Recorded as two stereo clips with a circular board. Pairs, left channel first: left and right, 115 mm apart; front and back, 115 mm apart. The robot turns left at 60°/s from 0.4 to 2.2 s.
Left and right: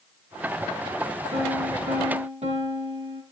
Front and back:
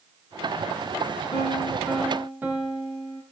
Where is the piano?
50° right, 5.5 m; by 3.2 s 105° right, 5.5 m.